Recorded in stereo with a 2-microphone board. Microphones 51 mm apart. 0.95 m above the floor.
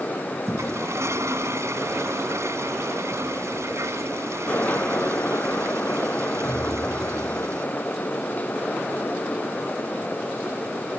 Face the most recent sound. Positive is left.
turn(degrees=-65)  # may be behind; listen again after turning